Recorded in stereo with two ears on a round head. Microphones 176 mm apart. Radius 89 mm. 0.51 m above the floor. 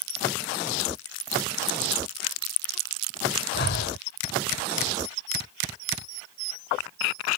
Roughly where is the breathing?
Left.